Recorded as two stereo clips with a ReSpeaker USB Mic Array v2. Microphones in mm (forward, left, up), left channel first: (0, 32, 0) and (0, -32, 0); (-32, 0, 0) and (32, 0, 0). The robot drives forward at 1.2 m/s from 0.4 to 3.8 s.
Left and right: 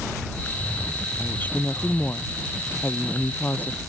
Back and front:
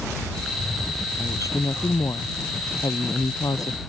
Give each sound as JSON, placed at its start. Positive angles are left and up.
{"t": 1.2, "sound": "a woman speaking", "azimuth_deg": 150}